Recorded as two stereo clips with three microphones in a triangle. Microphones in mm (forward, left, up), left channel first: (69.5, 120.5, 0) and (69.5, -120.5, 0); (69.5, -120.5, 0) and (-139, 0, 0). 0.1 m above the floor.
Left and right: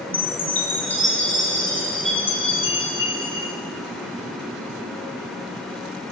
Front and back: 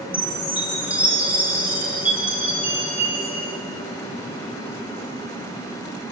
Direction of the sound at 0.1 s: 70° left.